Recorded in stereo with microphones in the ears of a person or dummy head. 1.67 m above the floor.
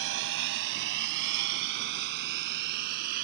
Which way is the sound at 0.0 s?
70° right (ahead or behind).